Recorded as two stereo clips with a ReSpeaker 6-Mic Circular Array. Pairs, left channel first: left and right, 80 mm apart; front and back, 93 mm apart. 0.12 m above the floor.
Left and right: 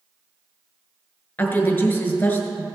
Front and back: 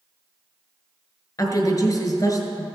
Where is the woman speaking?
30° left, 1.5 m.